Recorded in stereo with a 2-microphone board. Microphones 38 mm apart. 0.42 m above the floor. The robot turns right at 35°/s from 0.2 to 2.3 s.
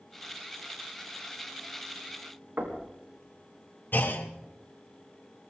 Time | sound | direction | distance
2.6 | knocking | 65° right (ahead or behind) | 3.5 m
3.9 | a clunk | 60° left (ahead or behind) | 2.0 m